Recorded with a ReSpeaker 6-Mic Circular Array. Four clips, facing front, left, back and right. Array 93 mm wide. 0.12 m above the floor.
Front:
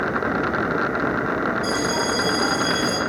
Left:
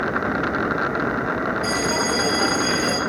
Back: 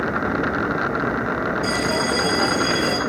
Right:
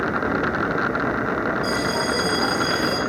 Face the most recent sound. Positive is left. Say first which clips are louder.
# even, back 1 dB
turn(degrees=140)